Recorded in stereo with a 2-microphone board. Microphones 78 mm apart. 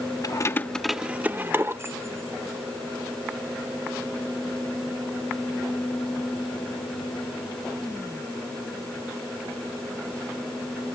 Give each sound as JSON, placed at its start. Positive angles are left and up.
{"t": 0.2, "sound": "keys jangling", "side_deg": 55}